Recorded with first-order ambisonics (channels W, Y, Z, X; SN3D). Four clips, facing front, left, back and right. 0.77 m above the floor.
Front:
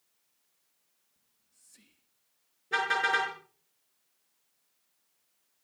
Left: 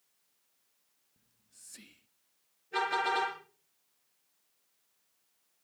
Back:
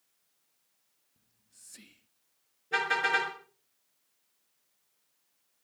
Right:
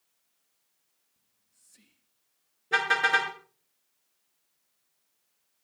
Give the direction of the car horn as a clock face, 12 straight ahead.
3 o'clock.